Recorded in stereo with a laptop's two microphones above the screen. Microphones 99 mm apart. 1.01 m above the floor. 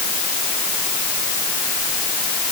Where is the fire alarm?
No fire alarm in this recording.